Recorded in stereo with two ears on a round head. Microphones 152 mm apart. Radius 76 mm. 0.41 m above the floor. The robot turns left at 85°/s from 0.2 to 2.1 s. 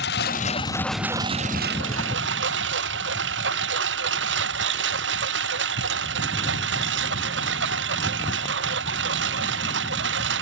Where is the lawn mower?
65° left; by 10.4 s 100° right.